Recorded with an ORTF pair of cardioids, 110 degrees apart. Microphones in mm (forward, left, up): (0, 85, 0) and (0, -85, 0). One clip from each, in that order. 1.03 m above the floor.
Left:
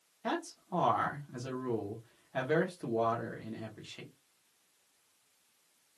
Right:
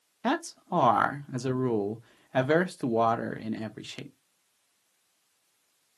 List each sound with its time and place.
0.2 s a man speaking: 55° right, 0.8 m